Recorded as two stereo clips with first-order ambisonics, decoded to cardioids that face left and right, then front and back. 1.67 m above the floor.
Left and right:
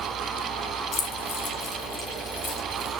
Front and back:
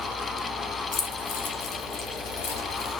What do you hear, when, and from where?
0.9 s keys jangling: 40° left, 1.1 m; by 3.0 s 25° left, 2 m